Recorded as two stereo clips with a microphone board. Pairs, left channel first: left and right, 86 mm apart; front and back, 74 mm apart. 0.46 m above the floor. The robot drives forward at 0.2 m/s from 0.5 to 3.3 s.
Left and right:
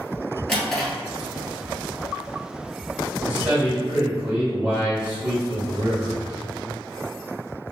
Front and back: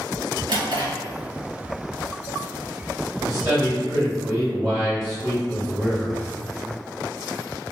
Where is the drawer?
175° left, 1.8 m.